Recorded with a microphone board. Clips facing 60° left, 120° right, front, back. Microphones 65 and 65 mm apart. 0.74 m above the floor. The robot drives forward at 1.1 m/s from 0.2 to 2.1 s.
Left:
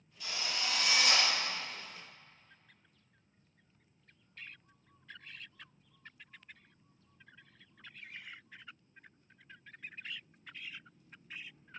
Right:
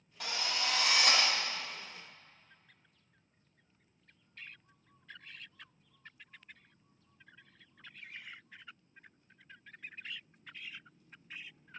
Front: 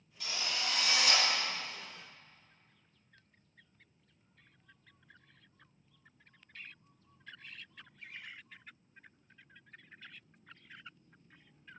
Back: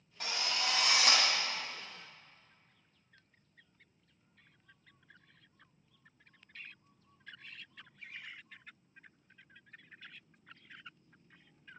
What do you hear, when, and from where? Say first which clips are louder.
0.2 s a drill: right 2 dB, back 2 dB; 140° right, 2 m; by 1.2 s 155° right, 3 m